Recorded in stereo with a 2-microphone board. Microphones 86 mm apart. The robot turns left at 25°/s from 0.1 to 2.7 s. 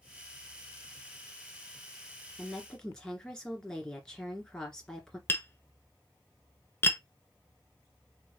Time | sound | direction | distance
2.4 | a woman speaking | 5° left (ahead or behind) | 1.8 m
5.3 | tapping | 25° left (ahead or behind) | 0.8 m